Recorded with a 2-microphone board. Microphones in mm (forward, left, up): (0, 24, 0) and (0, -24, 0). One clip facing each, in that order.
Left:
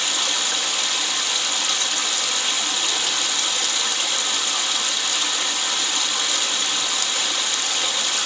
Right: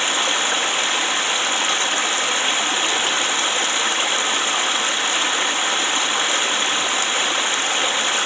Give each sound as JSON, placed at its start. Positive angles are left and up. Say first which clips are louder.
{"t": 0.0, "sound": "running water", "louder": "right 5 dB", "side_deg": -30, "distance_m": 0.8}